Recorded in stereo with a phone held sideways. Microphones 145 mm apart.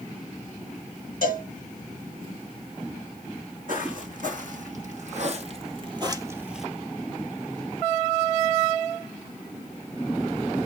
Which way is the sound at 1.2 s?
75° right (ahead or behind).